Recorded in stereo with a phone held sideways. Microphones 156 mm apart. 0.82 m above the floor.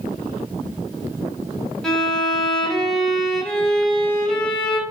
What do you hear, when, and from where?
1.8 s a violin: centre (ahead or behind), 0.8 m